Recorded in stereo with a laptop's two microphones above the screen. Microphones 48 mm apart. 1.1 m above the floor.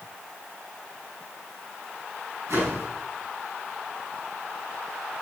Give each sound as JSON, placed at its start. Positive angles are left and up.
{"t": 2.5, "sound": "a whoosh", "side_deg": -80, "distance_m": 7.5}